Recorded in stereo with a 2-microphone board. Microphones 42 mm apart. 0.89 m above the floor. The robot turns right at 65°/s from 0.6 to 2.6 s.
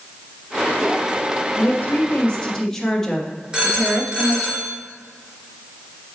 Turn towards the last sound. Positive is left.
turn(degrees=-25)  # may be behind; listen again after turning